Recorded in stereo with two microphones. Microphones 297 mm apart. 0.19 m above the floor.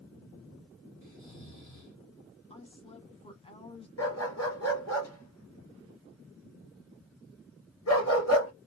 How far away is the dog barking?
About 1.6 m.